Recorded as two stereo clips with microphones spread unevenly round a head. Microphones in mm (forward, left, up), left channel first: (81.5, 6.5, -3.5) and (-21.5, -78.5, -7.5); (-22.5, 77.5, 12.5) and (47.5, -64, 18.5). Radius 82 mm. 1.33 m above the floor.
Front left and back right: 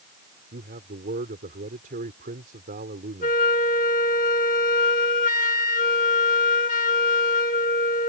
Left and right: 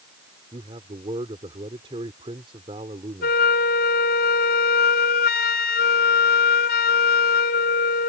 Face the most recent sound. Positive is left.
turn(degrees=85)